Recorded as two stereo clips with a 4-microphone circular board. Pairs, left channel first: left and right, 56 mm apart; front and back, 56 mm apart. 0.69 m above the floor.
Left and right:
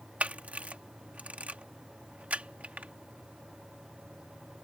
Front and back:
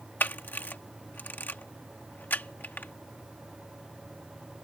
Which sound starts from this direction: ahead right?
A camera shutter, at 0.2 s.